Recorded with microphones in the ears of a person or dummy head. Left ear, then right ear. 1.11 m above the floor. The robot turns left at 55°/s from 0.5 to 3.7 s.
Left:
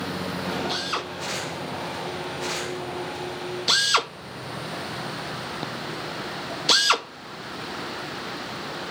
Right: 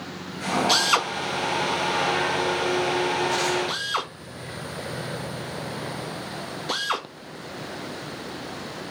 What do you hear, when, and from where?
0.7 s a drill: 55° right (ahead or behind), 1.7 m; by 8.9 s 70° left (ahead or behind), 1.7 m